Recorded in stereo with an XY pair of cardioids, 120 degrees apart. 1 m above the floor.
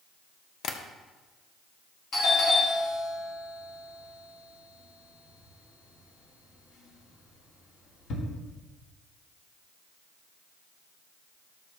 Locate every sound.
0.6 s tapping: 65° left, 0.9 m
2.1 s a doorbell: 65° left, 2.5 m